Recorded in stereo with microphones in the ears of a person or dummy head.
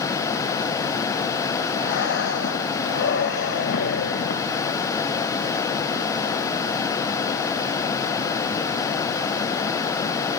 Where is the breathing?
70° left (ahead or behind), 1.7 m.